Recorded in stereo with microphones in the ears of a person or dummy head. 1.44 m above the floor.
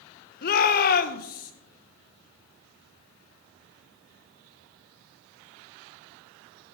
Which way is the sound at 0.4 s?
55° left (ahead or behind).